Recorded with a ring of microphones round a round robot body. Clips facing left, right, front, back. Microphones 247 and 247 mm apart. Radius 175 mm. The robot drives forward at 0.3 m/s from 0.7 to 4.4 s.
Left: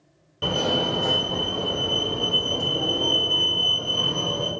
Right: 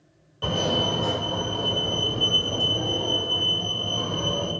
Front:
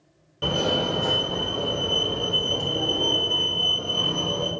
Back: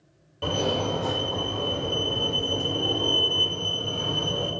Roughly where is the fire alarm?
Ahead left.